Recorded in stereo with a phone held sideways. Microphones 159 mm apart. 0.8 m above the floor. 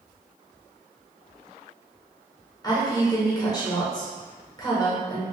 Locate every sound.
2.6 s a woman speaking: 25° left (ahead or behind), 1.0 m